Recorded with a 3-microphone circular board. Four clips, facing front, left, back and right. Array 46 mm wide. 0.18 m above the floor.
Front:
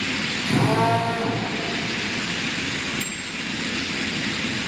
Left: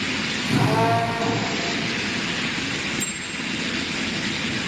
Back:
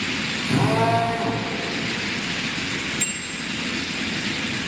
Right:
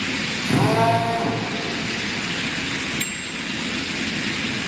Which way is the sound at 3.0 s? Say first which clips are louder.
Right 1 dB, even; 110° right.